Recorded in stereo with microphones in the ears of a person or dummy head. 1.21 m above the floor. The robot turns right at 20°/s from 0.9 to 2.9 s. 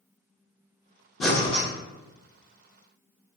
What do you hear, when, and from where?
1.2 s breathing: 5° left (ahead or behind), 0.6 m; by 1.6 s 10° left (ahead or behind), 0.6 m